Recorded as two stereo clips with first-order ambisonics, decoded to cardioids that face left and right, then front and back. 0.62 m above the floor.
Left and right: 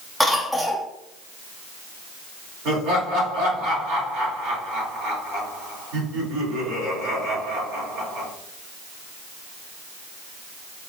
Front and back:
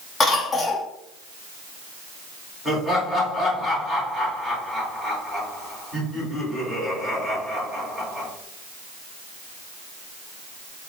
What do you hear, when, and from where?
0.2 s a cough: 20° right, 0.6 m
2.6 s laughter: 100° right, 1.8 m